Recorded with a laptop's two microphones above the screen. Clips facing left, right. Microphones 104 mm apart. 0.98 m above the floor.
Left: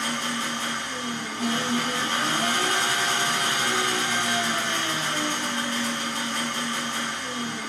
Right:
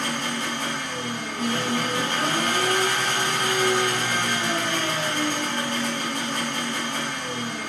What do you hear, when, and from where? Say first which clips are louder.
0.0 s an engine running: right 1 dB; 55° right (ahead or behind), 1.1 m